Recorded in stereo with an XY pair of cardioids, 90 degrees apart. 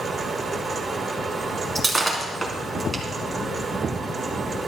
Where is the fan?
35° right, 3.5 m.